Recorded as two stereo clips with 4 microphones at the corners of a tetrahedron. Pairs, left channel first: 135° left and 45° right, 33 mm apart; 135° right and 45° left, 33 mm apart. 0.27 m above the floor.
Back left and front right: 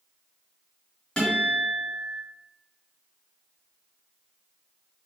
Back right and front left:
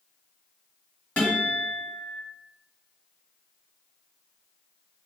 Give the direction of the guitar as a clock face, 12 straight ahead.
5 o'clock.